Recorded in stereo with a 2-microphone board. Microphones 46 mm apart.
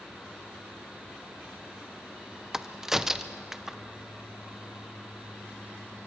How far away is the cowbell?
I don't hear a cowbell.